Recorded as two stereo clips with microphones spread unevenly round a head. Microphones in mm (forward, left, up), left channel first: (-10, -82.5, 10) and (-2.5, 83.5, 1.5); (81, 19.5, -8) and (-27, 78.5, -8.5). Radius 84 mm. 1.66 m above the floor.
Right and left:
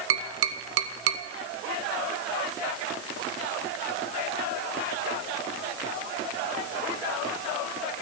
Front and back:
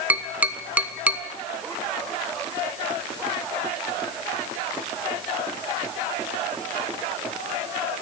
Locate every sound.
0.1 s tapping: 75° left, 0.9 m